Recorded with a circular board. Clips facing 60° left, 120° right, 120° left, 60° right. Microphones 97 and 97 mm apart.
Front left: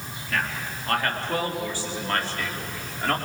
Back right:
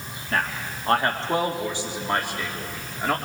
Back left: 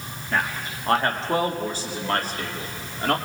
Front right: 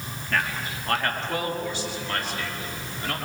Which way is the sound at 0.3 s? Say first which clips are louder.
Back right 2 dB, back left 1 dB; 170° right.